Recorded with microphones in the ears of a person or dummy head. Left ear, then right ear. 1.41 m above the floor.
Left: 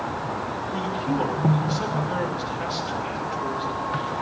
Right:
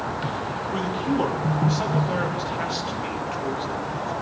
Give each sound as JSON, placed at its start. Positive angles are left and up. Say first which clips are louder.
{"t": 0.7, "sound": "a man speaking", "louder": "right 1 dB", "side_deg": -20, "distance_m": 3.0}